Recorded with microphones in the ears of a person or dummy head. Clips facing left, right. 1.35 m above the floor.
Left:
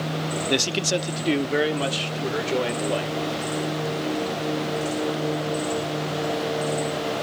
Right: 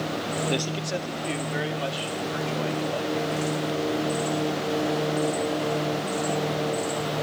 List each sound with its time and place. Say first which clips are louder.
0.5 s a man speaking: left 4 dB; 20° left (ahead or behind), 0.5 m; by 3.2 s 75° left (ahead or behind), 1.8 m